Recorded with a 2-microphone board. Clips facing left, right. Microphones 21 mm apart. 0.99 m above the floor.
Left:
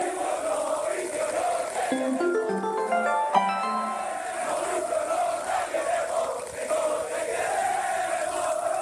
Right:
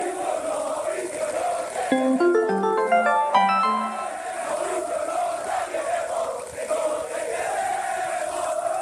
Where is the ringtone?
25° right (ahead or behind), 0.5 m.